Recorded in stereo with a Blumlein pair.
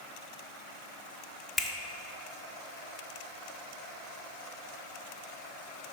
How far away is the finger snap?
About 0.6 m.